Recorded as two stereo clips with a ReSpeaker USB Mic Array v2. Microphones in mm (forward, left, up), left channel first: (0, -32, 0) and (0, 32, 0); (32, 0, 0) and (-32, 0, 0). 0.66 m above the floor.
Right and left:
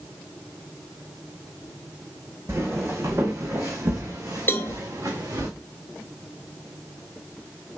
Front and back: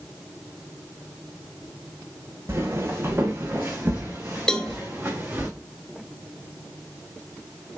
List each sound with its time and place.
2.5 s footsteps: 135° left, 2.0 m; by 5.5 s 115° left, 3.5 m
4.5 s a cowbell: 70° right, 0.7 m